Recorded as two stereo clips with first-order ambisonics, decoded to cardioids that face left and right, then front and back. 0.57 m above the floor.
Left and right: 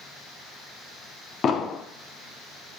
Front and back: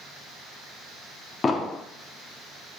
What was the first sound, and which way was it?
An explosion, 55° left.